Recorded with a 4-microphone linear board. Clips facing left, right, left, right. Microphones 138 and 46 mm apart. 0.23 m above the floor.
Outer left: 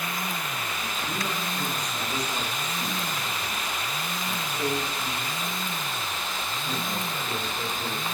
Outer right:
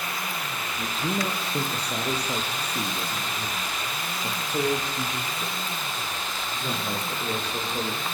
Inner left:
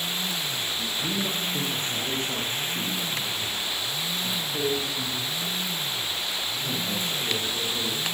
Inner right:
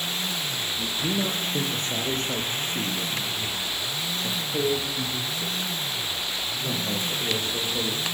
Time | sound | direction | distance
0.8 | a man speaking | 75° right (ahead or behind) | 5.5 m